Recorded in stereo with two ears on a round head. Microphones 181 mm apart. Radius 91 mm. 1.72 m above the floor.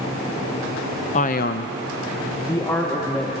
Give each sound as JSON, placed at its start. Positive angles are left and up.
{"t": 1.1, "sound": "a man speaking", "side_deg": 35, "distance_m": 0.7}